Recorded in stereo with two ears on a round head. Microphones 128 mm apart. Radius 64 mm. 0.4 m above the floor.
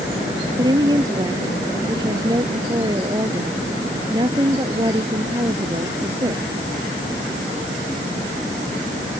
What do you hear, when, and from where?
0.6 s a woman speaking: 30° right (ahead or behind)